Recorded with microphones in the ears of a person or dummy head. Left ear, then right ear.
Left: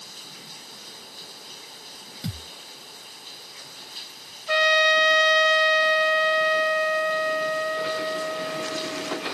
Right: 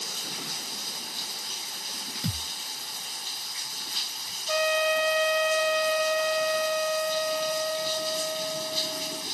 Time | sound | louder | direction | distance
0.0 | running water | right 8 dB | 25° right (ahead or behind) | ?
2.2 | a thud | right 2 dB | 5° right (ahead or behind) | ?
4.5 | a trumpet | left 6 dB | 55° left (ahead or behind) | ?